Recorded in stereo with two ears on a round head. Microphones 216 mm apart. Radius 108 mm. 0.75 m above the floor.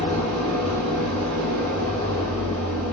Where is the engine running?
75° right (ahead or behind), 10 m.